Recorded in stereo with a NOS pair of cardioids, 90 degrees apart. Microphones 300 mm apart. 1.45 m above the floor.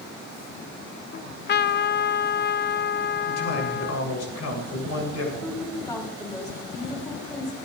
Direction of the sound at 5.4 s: 10° left.